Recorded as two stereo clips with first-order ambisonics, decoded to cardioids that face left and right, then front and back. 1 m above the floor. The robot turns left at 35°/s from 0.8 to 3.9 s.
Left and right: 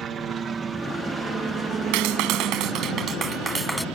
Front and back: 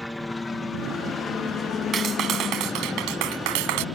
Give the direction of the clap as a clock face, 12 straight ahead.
4 o'clock.